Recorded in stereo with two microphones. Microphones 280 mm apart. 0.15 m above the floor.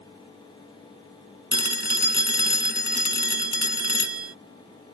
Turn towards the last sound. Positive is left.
turn(degrees=40)  # may be behind; listen again after turning